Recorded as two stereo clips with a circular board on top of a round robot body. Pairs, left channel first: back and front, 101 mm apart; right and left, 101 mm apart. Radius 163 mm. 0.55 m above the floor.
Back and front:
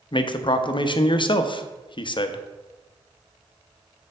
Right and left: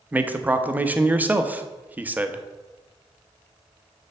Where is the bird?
No bird in this recording.